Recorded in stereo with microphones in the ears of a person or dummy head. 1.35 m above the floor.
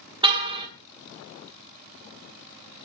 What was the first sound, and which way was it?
A car horn, 25° right (ahead or behind).